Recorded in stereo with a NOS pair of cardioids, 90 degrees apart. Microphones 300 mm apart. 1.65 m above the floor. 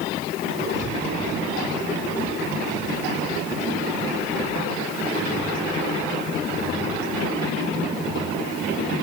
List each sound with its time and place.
0.8 s breathing: 40° right, 6.5 m